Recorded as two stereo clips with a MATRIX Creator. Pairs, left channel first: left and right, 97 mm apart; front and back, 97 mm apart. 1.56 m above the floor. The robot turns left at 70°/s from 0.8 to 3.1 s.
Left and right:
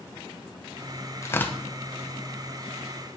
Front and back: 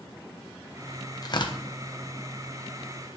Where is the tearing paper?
40° left, 0.6 m; by 1.6 s 10° left, 0.6 m.